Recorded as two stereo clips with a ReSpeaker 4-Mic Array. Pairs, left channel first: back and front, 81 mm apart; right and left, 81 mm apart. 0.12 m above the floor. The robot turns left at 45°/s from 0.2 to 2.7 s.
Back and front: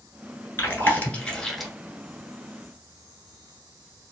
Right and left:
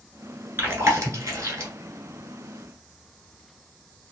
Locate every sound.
0.6 s chewing: 140° left, 0.9 m; by 1.7 s 85° left, 0.9 m